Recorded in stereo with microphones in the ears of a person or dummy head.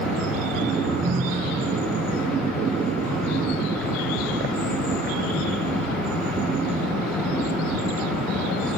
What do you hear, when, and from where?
0.9 s a ringtone: 15° right (ahead or behind), 0.8 m